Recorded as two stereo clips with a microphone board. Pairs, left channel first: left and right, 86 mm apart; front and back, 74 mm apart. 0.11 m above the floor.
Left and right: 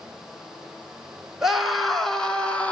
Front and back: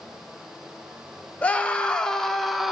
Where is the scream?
15° right, 1.2 m; by 2.7 s 100° left, 1.2 m.